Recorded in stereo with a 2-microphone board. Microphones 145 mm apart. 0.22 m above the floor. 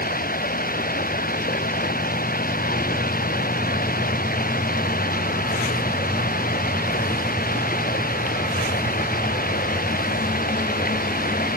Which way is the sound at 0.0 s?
90° left.